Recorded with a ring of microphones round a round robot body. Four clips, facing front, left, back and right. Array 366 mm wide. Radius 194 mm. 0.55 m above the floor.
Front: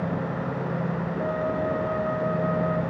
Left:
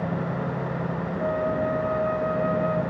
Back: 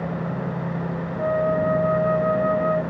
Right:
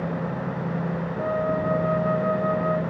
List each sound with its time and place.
1.2 s a flute: 170° right, 1.2 m